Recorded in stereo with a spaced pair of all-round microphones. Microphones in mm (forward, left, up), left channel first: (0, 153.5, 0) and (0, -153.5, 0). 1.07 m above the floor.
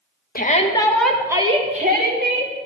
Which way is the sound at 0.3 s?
30° left (ahead or behind).